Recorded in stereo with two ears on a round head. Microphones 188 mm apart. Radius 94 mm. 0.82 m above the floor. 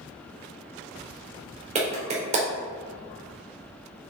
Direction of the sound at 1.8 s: 35° right (ahead or behind).